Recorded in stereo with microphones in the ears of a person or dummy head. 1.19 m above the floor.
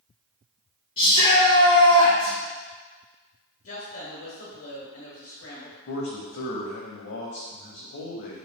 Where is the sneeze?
I don't hear a sneeze.